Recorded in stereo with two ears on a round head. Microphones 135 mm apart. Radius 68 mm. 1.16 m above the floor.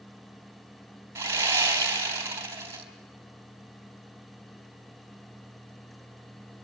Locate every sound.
1.1 s sawing: 20° right (ahead or behind), 3.5 m